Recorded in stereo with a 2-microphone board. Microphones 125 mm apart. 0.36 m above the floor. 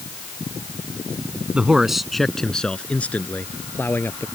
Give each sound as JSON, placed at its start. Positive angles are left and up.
{"t": 1.5, "sound": "a man speaking", "side_deg": -10}